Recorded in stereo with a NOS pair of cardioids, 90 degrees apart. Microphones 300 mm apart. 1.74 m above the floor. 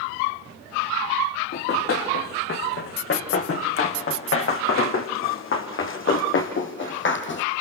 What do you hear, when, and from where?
1.5 s running footsteps: 50° left, 5.5 m